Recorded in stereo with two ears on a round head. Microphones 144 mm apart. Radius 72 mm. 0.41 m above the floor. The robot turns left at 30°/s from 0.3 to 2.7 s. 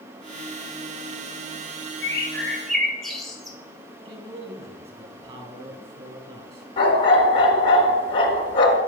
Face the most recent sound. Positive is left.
turn(degrees=30)  # may be behind; listen again after turning